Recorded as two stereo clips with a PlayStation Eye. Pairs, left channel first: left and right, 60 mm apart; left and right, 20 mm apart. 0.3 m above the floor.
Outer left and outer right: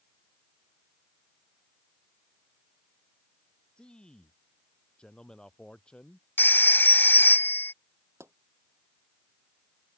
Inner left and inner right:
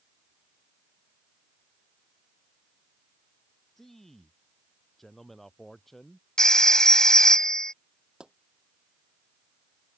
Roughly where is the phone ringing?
Left.